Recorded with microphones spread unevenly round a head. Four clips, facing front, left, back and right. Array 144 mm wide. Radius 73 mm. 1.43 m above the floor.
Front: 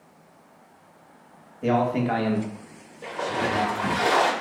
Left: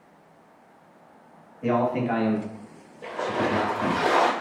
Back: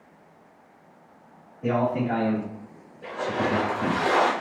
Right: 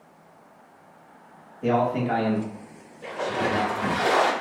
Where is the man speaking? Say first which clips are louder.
Right 1 dB, front 2 dB; 35° left, 1.3 m; by 4.0 s 160° left, 1.1 m.